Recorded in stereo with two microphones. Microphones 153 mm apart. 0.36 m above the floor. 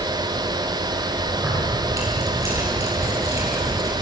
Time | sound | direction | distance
1.4 | keys jangling | 20° right (ahead or behind) | 7 m